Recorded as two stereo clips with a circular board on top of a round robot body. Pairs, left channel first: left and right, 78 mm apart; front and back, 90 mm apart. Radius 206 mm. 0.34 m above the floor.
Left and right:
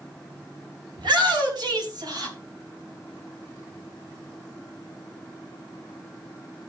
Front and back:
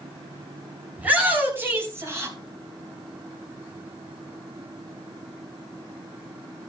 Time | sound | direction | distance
1.0 | a shout | 110° right | 4.5 m